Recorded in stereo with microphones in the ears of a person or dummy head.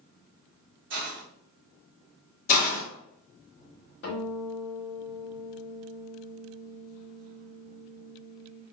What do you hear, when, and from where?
0.9 s a hiss: 55° right (ahead or behind), 1.2 m
2.5 s a hiss: 50° left (ahead or behind), 1.5 m
4.0 s a guitar: 65° left (ahead or behind), 2 m